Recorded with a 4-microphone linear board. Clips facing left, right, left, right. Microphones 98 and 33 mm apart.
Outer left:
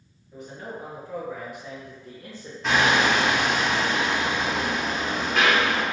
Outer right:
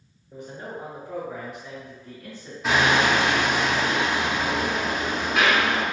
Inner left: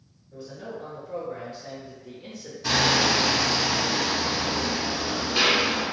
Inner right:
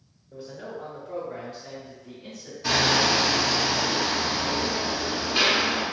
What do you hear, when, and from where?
0.3 s a man speaking: 45° right (ahead or behind), 1.3 m; by 2.5 s 45° left (ahead or behind), 1.1 m
2.6 s hammering: 5° right (ahead or behind), 0.7 m